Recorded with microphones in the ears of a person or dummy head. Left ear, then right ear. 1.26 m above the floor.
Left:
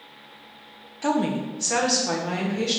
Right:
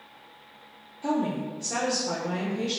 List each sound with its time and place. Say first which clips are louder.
1.0 s a woman speaking: left 4 dB; 45° left (ahead or behind), 0.6 m; by 2.8 s 40° left (ahead or behind), 1.4 m